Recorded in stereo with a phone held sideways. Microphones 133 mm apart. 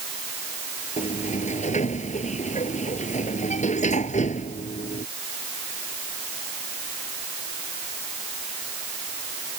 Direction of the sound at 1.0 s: 65° left (ahead or behind).